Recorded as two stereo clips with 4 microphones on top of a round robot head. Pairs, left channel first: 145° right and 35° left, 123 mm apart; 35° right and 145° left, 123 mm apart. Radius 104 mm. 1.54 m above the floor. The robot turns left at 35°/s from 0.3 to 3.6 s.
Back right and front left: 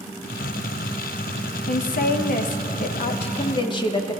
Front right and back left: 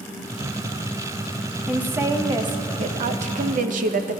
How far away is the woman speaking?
About 0.6 m.